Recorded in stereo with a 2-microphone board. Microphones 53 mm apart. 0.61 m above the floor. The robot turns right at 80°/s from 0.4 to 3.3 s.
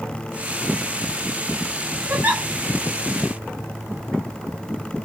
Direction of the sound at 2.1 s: 45° right (ahead or behind).